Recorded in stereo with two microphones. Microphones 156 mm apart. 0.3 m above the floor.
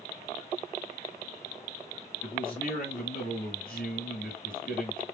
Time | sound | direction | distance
2.2 | a man speaking | 60° left (ahead or behind) | 2 m